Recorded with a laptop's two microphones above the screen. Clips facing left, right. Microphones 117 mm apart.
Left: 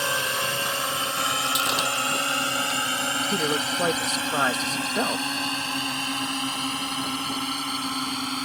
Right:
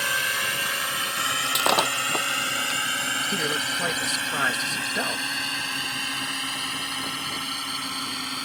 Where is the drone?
25° left (ahead or behind); by 8.5 s 35° left (ahead or behind).